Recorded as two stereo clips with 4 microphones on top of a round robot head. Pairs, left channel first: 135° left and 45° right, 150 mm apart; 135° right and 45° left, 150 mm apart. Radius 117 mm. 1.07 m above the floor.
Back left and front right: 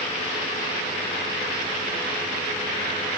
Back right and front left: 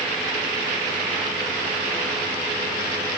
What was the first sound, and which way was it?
Only background noise.